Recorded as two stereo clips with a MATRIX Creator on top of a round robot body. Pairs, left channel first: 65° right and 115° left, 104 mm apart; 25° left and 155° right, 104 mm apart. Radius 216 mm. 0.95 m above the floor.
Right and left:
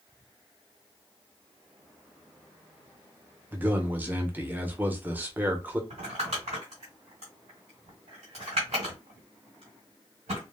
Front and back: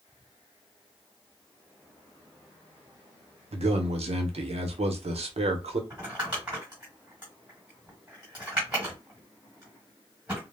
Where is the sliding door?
No sliding door in this recording.